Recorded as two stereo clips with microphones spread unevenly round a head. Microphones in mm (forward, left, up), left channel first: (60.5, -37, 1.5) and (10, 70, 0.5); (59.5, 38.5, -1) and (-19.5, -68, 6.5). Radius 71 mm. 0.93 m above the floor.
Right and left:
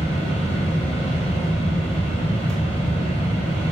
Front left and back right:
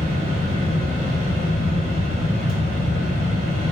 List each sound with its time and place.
0.0 s a fan: 110° right, 1.0 m